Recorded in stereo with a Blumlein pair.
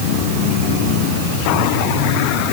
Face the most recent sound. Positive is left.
No sound to turn to.